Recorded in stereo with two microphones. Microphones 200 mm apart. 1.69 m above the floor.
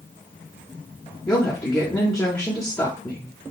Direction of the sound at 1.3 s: 20° left (ahead or behind).